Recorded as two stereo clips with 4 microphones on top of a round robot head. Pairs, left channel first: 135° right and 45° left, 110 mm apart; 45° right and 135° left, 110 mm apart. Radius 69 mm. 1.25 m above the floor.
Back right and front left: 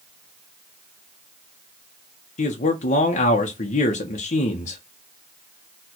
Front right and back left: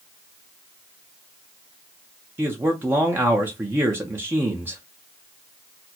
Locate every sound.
2.4 s a man speaking: 150° right, 0.6 m